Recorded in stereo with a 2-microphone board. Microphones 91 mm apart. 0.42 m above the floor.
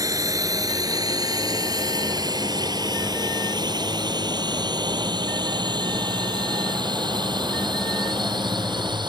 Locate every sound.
0.0 s a drone: 40° right (ahead or behind); by 9.1 s 55° right (ahead or behind)